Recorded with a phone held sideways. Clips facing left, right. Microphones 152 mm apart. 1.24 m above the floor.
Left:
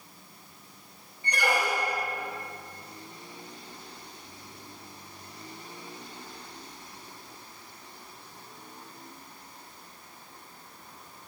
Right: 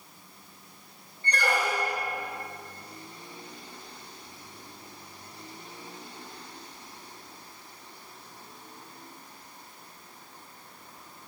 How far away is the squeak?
About 1.0 m.